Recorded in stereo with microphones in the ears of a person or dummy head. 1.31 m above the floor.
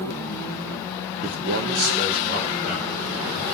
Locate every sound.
1.2 s a man speaking: 45° right (ahead or behind), 0.6 m; by 3.4 s 40° right (ahead or behind), 2.5 m